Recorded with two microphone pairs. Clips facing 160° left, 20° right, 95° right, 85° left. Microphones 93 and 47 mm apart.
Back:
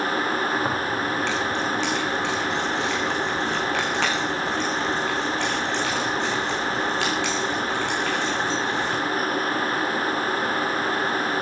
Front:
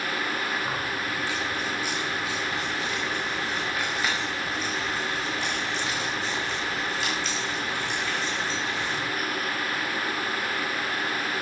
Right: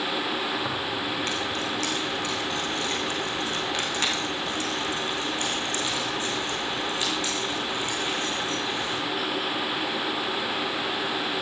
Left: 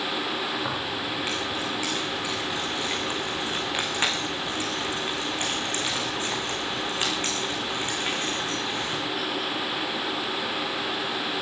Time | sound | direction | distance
0.6 | keys jangling | 175° left | 6 m